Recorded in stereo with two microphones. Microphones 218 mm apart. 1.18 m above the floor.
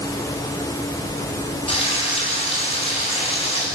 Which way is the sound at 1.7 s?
30° left (ahead or behind).